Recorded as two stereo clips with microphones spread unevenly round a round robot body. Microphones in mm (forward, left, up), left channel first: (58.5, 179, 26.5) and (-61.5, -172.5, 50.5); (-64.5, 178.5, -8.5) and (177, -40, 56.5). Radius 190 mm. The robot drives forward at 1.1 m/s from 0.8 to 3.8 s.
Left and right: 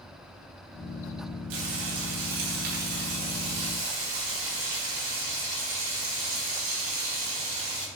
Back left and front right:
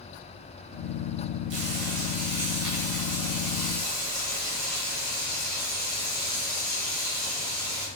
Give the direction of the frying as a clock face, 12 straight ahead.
4 o'clock.